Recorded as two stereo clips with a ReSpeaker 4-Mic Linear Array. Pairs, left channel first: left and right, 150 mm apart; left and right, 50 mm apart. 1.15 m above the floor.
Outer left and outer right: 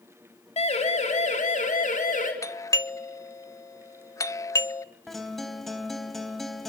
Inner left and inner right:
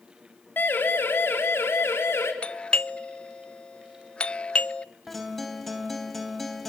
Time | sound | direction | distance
0.6 | a siren | 45° left (ahead or behind) | 4 m
2.4 | a doorbell | 20° left (ahead or behind) | 0.6 m
5.1 | a guitar | centre (ahead or behind) | 3.5 m